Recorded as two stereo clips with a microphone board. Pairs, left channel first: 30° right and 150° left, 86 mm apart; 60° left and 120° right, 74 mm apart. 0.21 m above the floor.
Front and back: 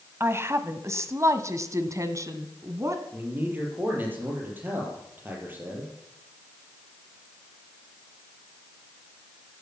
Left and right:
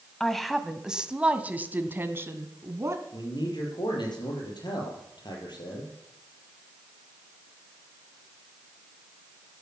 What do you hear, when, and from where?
0.2 s a woman speaking: 140° left, 1.3 m; by 3.0 s 165° right, 2 m
3.1 s a man speaking: 85° left, 5.5 m